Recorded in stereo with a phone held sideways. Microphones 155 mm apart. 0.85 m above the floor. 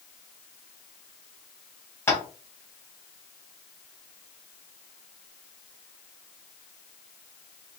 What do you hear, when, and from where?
2.1 s tapping: 15° left (ahead or behind), 1.1 m